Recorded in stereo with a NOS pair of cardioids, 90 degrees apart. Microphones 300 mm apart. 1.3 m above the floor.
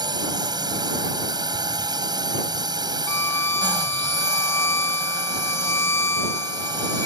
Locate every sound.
0.0 s a drone: 15° right
3.1 s a violin: 10° left